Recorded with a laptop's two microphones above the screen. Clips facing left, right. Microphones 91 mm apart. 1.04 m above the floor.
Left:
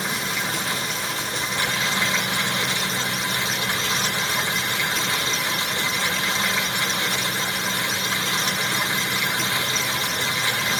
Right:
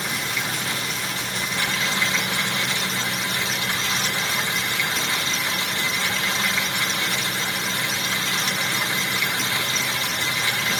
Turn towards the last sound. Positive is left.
turn(degrees=25)  # may be behind; listen again after turning